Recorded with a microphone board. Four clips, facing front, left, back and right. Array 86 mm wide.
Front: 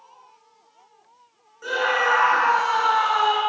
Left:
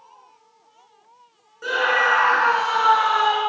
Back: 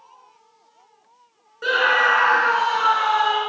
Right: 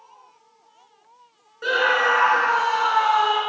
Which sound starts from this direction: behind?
A scream, at 1.6 s.